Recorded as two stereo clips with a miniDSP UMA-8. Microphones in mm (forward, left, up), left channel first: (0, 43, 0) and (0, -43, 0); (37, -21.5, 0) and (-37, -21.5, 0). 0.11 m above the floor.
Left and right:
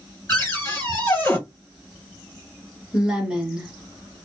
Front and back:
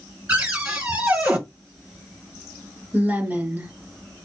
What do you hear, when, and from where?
0.3 s a cupboard door: 130° left, 1.5 m
2.9 s a woman speaking: 160° right, 1.3 m